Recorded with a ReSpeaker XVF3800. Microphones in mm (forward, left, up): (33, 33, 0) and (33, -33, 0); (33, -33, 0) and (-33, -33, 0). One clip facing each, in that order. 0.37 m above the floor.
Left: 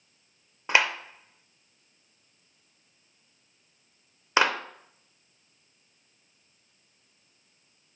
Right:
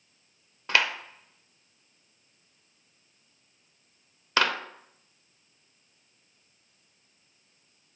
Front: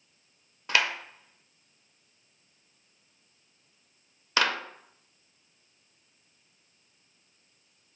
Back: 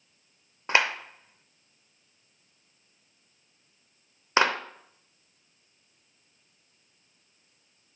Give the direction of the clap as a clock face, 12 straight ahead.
7 o'clock.